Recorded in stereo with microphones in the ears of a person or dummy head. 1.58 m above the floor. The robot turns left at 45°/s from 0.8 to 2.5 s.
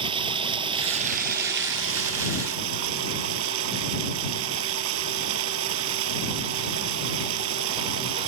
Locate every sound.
0.0 s running water: 30° right; by 8.3 s 105° right